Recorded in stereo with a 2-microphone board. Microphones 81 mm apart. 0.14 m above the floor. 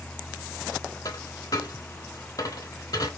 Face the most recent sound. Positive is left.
turn(degrees=50)  # may be behind; listen again after turning